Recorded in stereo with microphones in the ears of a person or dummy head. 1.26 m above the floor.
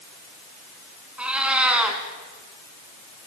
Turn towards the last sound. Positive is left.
turn(degrees=-5)  # may be behind; listen again after turning